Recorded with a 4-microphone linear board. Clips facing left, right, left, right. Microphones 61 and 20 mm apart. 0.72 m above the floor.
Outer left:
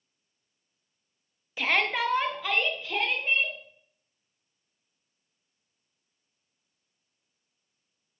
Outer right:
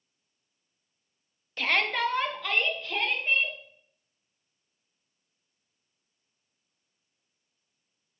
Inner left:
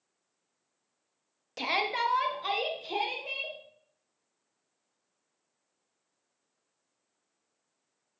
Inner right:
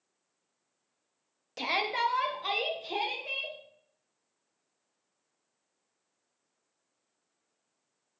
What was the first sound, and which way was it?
A shout, 5° left (ahead or behind).